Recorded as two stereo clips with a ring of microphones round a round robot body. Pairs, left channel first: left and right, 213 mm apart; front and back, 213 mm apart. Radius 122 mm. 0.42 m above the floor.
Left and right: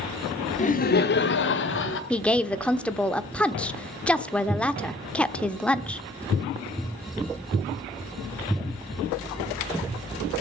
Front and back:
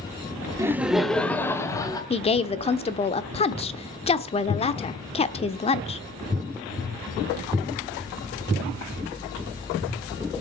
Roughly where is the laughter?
Behind left.